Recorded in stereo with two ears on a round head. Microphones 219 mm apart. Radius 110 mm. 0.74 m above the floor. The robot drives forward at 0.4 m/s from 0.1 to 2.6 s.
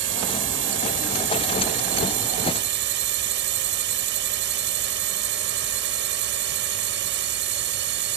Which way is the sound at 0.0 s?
55° right (ahead or behind).